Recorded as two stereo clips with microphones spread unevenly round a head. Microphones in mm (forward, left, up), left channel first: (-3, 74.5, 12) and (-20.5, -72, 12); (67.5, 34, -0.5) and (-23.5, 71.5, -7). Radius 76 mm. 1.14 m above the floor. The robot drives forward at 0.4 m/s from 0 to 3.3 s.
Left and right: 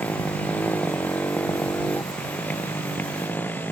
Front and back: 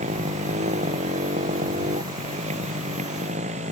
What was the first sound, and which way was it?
A motorcycle, 165° left.